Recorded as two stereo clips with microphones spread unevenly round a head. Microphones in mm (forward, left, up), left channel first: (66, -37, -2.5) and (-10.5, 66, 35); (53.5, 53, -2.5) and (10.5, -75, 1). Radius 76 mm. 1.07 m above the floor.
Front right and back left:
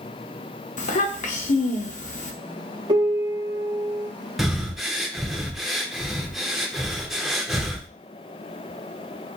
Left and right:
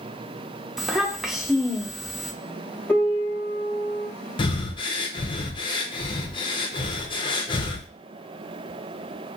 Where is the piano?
150° left, 0.7 m.